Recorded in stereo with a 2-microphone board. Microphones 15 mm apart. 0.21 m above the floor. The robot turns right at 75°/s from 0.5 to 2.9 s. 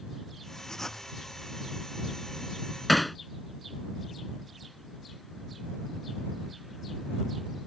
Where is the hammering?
5° left (ahead or behind).